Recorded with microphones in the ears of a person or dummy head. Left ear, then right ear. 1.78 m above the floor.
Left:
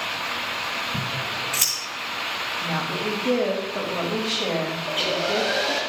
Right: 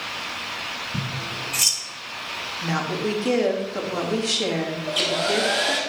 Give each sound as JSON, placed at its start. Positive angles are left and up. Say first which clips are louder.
{"t": 0.9, "sound": "scissors", "louder": "left 3 dB", "side_deg": 10, "distance_m": 2.0}
{"t": 2.6, "sound": "a woman speaking", "louder": "even", "side_deg": -70, "distance_m": 3.0}
{"t": 4.9, "sound": "a hair dryer", "louder": "right 2 dB", "side_deg": -65, "distance_m": 2.5}